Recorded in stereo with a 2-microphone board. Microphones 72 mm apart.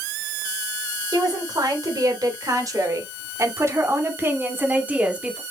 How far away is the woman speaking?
About 4 m.